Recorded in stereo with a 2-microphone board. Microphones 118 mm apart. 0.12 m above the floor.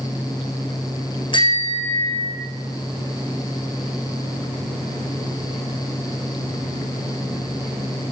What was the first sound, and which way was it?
A bicycle bell, 45° left (ahead or behind).